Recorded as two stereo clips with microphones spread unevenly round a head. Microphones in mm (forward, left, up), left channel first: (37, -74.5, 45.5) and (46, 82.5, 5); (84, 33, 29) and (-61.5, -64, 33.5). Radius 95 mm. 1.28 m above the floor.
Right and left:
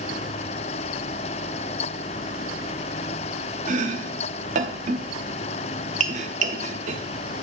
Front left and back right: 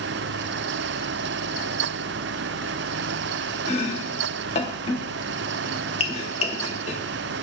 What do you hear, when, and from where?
3.7 s chopping: 60° left, 0.8 m